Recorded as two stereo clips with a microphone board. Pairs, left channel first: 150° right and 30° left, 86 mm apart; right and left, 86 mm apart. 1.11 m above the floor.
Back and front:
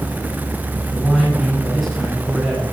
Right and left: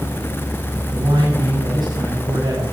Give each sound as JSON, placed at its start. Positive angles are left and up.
{"t": 0.9, "sound": "a man speaking", "azimuth_deg": 95, "distance_m": 6.5}